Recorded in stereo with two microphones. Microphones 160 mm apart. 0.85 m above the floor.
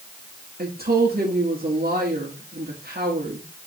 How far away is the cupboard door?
No cupboard door in this recording.